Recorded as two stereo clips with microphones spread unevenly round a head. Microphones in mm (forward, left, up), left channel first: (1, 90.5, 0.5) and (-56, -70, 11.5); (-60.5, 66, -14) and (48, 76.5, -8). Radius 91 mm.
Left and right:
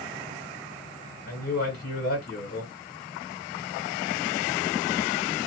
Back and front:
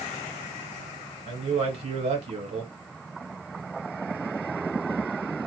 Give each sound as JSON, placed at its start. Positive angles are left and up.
{"t": 1.3, "sound": "a man speaking", "azimuth_deg": 30, "distance_m": 1.4}